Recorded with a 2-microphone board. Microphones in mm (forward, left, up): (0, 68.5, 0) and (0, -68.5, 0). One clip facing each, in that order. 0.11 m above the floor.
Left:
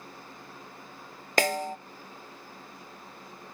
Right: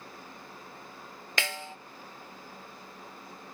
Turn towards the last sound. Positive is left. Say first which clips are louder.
# left 10 dB
turn(degrees=45)  # may be behind; listen again after turning